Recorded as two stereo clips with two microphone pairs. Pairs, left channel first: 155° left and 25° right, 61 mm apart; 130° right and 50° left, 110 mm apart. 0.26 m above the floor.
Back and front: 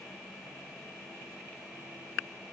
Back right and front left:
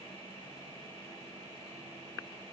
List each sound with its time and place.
Only background noise.